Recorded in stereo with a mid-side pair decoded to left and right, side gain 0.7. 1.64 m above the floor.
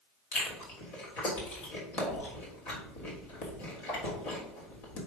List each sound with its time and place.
0.3 s chewing: 70° left, 3.5 m